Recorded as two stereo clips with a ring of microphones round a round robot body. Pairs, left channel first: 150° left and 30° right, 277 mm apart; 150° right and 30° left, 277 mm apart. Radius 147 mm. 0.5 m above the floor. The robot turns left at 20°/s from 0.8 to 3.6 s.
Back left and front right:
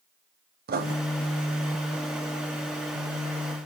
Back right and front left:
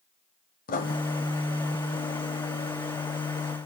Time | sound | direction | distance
0.7 | writing | 90° right | 1.1 m